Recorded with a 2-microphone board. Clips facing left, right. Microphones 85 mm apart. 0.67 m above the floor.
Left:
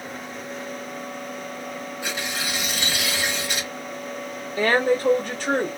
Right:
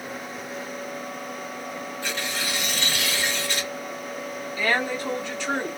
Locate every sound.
2.0 s tearing paper: 15° left (ahead or behind), 1.0 m
4.6 s a woman speaking: 45° left (ahead or behind), 1.0 m